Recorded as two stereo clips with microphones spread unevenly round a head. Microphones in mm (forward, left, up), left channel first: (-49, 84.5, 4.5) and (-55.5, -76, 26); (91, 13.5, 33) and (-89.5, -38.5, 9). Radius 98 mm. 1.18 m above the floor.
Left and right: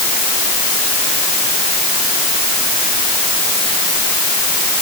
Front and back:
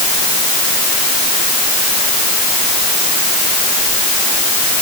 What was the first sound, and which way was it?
Only background noise.